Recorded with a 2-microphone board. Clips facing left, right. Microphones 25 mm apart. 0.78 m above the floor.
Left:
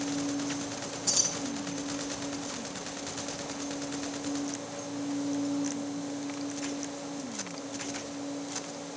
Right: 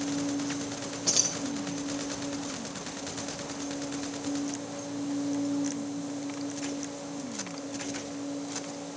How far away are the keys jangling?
About 2.5 m.